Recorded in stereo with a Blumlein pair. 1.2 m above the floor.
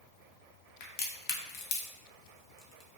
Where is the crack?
45° left, 0.6 m.